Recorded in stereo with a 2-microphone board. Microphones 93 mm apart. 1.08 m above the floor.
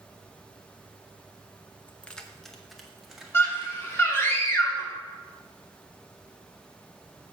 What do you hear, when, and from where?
1.9 s keys jangling: 15° left (ahead or behind), 0.6 m; by 4.0 s 10° right (ahead or behind), 1.8 m
3.3 s a scream: 25° left (ahead or behind), 2 m